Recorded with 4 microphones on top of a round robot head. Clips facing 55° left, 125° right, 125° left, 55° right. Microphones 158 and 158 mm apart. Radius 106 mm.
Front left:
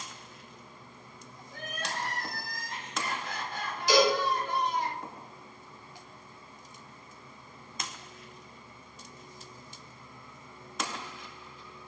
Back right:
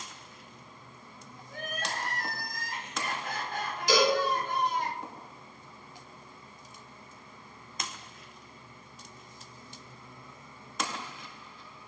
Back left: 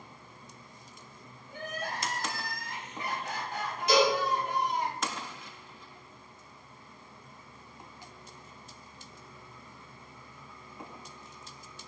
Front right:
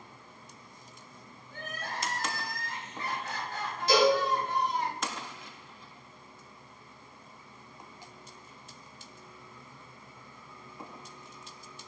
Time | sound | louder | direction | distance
1.5 | crying | back right 2 dB, back left 3 dB | 160° right | 1.1 m
3.9 | a cowbell | front left 1 dB, front right 1 dB | 115° right | 1.1 m